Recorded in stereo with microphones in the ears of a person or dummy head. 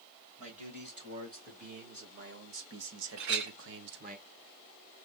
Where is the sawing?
No sawing in this recording.